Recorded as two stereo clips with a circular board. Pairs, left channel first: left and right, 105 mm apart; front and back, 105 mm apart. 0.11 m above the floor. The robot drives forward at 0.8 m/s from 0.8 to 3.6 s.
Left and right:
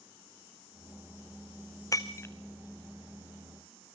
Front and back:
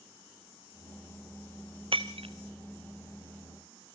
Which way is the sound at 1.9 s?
150° left.